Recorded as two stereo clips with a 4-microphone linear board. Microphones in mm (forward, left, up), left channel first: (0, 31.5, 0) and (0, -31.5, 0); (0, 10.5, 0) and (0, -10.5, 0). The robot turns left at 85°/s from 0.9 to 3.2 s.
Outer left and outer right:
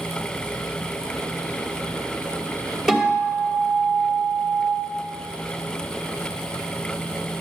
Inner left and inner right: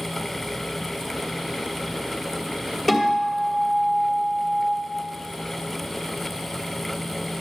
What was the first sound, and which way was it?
A guitar, 5° right (ahead or behind).